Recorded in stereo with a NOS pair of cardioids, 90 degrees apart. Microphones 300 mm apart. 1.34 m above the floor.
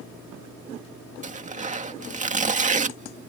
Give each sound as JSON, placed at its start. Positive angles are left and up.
{"t": 1.2, "sound": "tearing paper", "azimuth_deg": -25}